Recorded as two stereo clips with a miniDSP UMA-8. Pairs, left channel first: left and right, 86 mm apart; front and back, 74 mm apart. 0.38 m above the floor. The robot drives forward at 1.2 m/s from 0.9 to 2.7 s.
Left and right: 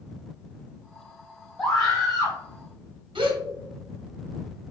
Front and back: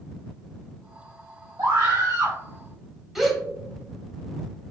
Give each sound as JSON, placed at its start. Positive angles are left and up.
{"t": 1.6, "sound": "a scream", "azimuth_deg": 175, "distance_m": 1.8}
{"t": 3.1, "sound": "a gasp", "azimuth_deg": -90, "distance_m": 1.0}